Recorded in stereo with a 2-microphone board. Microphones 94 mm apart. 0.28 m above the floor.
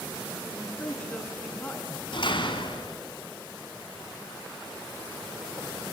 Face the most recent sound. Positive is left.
turn(degrees=65)  # may be behind; listen again after turning